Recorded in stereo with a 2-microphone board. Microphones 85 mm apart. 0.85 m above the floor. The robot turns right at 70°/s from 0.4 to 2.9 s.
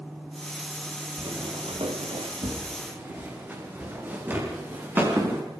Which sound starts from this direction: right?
Footsteps, at 1.2 s.